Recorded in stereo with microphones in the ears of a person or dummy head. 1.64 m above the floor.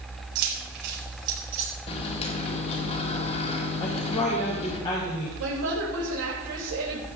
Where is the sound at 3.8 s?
25° left (ahead or behind), 2.5 m.